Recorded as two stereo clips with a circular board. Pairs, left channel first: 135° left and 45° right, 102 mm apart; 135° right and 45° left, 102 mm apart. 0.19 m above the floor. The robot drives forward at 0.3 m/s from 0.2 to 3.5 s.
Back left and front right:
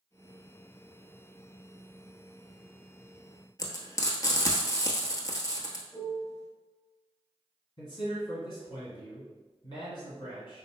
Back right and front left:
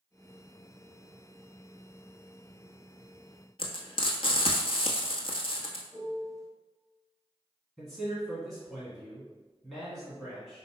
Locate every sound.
3.6 s frying: 170° right, 0.9 m
5.9 s a piano: 145° left, 1.6 m
7.8 s a man speaking: 140° left, 1.6 m